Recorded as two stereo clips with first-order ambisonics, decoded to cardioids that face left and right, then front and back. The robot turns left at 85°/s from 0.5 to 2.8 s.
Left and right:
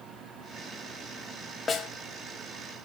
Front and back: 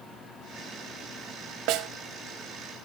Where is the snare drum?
160° left, 0.7 m; by 1.9 s 145° left, 0.7 m.